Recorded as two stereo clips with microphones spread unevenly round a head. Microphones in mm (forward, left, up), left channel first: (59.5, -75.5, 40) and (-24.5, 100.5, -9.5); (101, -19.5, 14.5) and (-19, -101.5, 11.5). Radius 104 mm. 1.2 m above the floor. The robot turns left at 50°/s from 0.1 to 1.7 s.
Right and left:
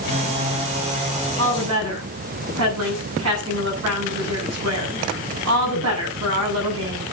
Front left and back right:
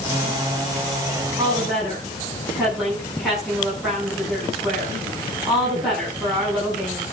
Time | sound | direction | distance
1.4 | a woman speaking | 140° left | 9.5 m